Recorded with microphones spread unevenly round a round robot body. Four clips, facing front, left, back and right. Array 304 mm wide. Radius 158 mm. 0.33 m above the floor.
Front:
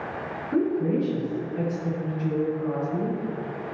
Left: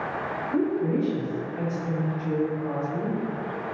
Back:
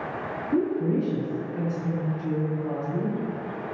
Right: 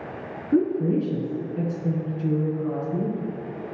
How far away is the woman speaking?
About 3.5 m.